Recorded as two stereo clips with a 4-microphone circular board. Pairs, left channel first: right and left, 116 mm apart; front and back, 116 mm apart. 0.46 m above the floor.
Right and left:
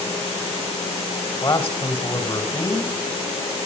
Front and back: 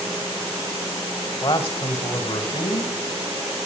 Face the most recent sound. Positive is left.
turn(degrees=-30)